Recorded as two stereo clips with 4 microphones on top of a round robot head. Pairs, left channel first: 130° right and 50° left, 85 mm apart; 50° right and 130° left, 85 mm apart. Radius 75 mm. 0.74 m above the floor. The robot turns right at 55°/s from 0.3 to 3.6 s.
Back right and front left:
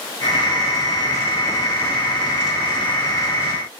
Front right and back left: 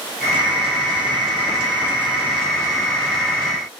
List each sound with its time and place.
Only background noise.